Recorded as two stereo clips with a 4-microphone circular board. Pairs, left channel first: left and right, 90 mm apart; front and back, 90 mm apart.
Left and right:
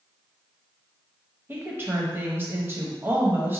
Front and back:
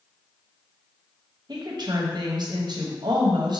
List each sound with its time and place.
1.5 s a woman speaking: 150° right, 0.7 m